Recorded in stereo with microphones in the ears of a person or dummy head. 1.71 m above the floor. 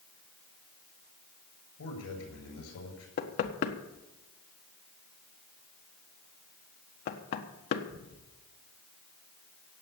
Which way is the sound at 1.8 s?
85° left.